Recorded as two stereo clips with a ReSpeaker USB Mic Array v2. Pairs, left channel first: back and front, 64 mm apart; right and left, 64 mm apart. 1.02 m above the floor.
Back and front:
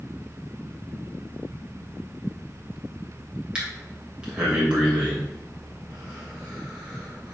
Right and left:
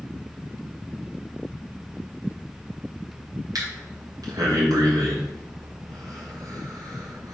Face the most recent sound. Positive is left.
turn(degrees=75)